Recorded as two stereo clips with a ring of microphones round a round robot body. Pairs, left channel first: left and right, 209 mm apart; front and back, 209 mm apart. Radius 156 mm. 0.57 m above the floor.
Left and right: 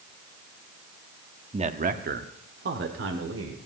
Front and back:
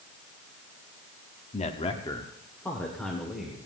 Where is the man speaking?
40° right, 1.1 m; by 3.6 s 90° right, 2.5 m.